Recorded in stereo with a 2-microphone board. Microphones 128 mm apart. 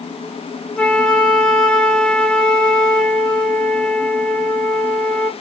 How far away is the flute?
About 1.3 m.